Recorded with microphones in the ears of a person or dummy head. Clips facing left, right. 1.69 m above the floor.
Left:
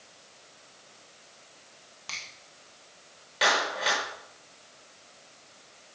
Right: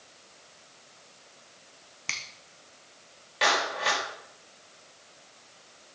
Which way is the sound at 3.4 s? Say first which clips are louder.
Even; centre (ahead or behind).